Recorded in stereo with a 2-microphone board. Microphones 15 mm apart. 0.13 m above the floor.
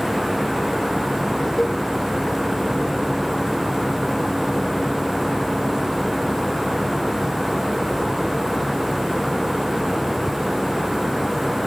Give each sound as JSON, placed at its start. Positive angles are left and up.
{"t": 1.6, "sound": "a cowbell", "side_deg": 15}